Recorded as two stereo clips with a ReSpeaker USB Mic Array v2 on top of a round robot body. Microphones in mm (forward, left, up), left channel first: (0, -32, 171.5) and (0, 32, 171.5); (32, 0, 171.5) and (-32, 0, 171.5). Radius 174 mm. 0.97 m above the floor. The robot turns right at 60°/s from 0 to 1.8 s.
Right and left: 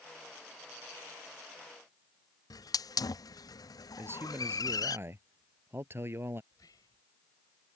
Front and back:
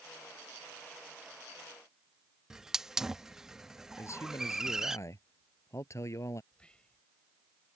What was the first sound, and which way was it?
A hiss, 100° right.